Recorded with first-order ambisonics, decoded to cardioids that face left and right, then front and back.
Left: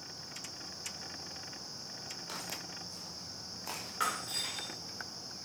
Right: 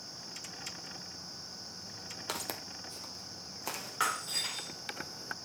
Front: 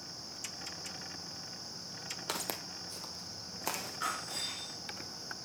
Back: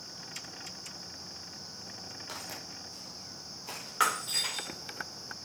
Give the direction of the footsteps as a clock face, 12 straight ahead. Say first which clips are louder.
Right 5 dB, front 5 dB; 2 o'clock.